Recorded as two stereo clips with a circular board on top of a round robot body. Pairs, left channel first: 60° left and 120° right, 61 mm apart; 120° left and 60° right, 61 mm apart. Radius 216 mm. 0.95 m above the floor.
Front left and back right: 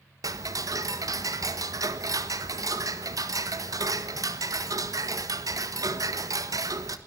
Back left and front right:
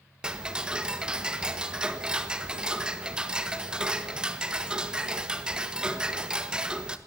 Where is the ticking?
135° right, 1.7 m.